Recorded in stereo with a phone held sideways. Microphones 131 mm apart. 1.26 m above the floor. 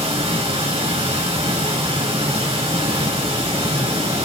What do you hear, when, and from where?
0.0 s running water: 45° right (ahead or behind), 5.5 m